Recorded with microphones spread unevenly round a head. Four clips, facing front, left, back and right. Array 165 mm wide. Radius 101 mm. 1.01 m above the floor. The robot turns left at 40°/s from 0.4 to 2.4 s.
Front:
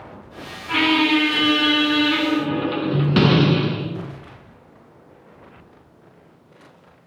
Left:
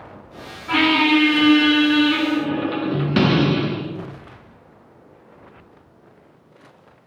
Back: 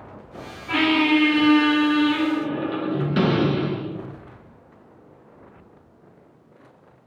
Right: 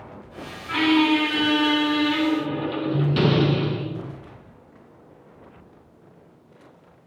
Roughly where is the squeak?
Left.